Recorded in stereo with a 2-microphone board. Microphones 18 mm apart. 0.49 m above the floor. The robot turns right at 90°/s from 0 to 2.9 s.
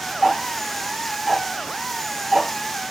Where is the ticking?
35° left (ahead or behind), 1.0 m; by 2.5 s 40° right (ahead or behind), 1.0 m.